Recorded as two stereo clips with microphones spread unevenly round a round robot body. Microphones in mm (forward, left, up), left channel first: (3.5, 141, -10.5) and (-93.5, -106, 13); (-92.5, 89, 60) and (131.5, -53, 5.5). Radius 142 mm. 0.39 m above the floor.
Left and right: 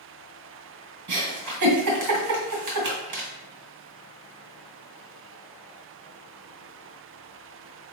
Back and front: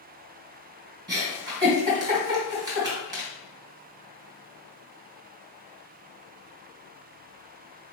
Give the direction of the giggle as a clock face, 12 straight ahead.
3 o'clock.